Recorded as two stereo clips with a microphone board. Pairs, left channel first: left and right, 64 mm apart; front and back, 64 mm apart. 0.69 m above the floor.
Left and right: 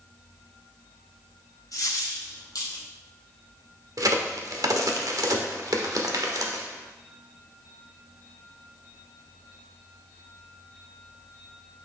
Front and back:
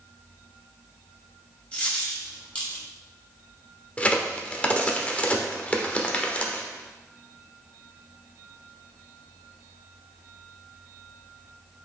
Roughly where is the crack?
Right.